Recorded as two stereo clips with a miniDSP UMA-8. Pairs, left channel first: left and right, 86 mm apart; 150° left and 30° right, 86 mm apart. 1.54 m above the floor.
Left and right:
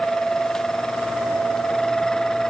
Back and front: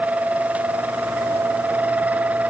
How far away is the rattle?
No rattle in this recording.